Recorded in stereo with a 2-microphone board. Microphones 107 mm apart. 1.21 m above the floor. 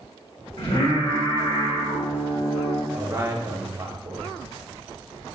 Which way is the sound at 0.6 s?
75° left (ahead or behind).